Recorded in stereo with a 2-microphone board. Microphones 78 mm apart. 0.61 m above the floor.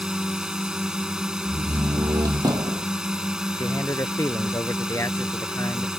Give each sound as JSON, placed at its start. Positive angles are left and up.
{"t": 0.0, "sound": "a drone", "side_deg": -10}
{"t": 1.4, "sound": "a door slam", "side_deg": -60}
{"t": 3.6, "sound": "a man speaking", "side_deg": 40}